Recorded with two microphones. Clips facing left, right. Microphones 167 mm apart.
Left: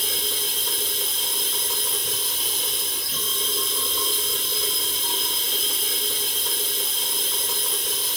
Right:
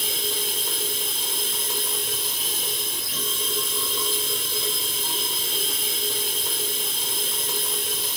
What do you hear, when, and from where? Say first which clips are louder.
0.0 s running water: right 1 dB; 10° right (ahead or behind), 1.2 m